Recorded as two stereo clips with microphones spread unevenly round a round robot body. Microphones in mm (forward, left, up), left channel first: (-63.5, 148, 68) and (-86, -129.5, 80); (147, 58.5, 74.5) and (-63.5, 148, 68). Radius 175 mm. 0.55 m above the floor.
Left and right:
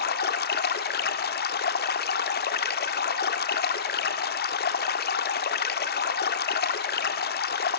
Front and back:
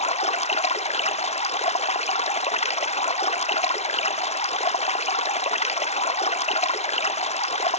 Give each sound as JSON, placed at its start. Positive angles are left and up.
{"t": 0.0, "sound": "running water", "azimuth_deg": 35, "distance_m": 1.2}